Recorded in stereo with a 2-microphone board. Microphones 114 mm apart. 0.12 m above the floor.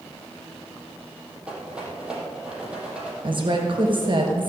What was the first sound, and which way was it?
A rattle, 10° right (ahead or behind).